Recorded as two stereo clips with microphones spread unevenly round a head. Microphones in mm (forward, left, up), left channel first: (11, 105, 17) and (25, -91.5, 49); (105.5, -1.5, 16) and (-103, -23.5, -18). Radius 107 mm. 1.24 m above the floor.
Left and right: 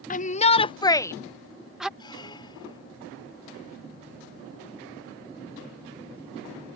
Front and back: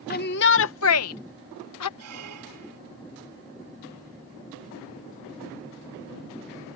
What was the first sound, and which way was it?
A shout, 55° left.